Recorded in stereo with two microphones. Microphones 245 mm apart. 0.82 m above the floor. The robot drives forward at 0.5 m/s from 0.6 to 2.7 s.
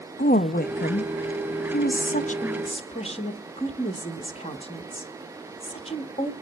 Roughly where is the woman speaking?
Left.